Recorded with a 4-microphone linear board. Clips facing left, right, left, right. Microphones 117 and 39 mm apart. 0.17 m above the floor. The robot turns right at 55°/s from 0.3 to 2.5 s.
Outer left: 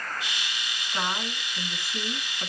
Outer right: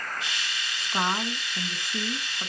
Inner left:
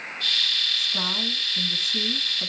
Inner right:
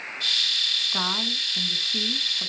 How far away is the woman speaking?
About 1.5 m.